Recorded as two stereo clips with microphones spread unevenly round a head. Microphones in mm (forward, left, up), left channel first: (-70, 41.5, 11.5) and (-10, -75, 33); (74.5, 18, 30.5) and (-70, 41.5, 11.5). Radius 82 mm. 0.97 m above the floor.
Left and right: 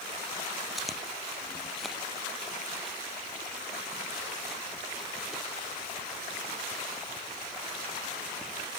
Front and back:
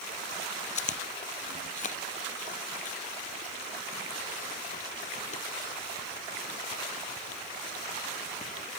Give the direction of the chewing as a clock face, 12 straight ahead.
11 o'clock.